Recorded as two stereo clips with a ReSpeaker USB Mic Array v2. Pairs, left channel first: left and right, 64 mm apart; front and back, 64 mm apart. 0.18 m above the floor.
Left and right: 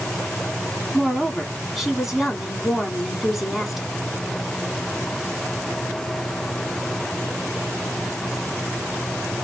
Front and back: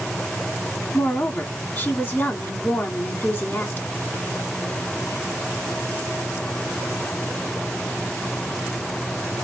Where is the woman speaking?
10° right, 1.6 m.